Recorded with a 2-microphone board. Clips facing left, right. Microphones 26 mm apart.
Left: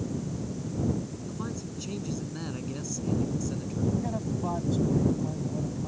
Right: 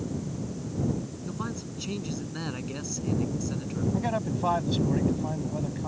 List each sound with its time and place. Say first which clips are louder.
1.2 s a man speaking: right 1 dB; 30° right (ahead or behind)
3.9 s a man speaking: right 3 dB; 70° right (ahead or behind)